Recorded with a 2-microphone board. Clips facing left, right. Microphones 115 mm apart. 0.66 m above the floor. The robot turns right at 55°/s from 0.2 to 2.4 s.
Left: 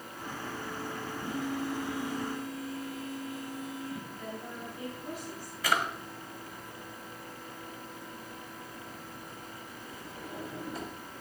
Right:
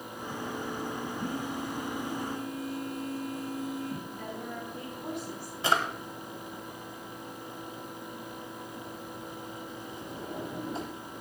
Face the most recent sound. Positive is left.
turn(degrees=-25)  # may be behind; listen again after turning